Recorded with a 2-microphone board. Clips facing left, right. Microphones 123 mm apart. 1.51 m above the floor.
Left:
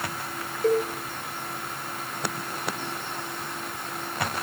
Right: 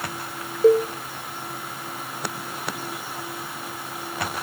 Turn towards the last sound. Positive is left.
turn(degrees=-35)  # may be behind; listen again after turning